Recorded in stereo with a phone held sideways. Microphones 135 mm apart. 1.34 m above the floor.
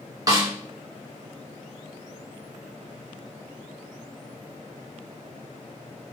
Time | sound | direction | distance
0.3 | a snare drum | 25° right (ahead or behind) | 0.7 m